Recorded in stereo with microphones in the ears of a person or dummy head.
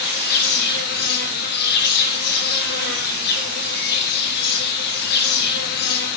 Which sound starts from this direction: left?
An insect, at 0.0 s.